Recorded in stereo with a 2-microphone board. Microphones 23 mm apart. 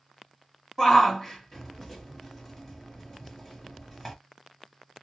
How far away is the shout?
About 1.5 m.